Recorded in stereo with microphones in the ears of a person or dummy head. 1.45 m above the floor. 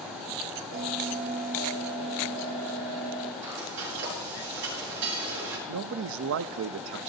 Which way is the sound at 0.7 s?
70° right (ahead or behind).